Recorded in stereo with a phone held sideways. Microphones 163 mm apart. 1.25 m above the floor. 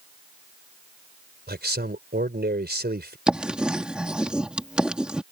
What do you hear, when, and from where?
1.5 s a man speaking: 90° right
3.3 s writing: 5° right (ahead or behind)